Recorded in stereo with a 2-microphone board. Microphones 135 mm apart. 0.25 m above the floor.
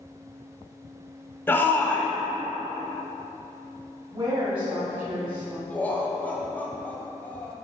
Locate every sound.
1.5 s a shout: 15° left (ahead or behind), 0.9 m
4.1 s a woman speaking: 40° right (ahead or behind), 1.2 m
5.7 s laughter: 15° left (ahead or behind), 1.1 m